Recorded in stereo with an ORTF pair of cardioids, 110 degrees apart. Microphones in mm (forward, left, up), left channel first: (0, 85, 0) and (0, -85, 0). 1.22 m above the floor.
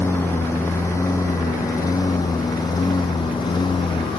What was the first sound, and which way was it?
A lawn mower, 10° left.